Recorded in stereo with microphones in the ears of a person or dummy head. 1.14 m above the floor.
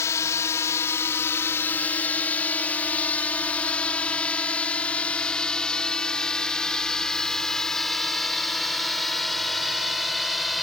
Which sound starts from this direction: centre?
A drone, at 0.0 s.